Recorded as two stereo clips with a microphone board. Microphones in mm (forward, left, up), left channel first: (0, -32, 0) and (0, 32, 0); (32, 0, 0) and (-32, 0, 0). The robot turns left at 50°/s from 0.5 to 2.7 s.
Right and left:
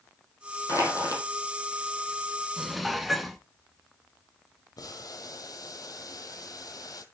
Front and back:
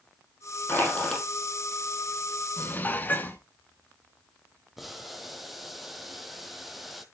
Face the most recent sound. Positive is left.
turn(degrees=-90)